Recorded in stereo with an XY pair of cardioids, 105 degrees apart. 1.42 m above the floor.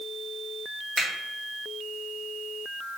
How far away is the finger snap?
About 2.0 m.